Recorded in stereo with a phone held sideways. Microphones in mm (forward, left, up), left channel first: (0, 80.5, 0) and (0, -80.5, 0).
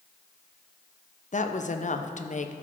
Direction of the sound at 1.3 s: 50° left (ahead or behind).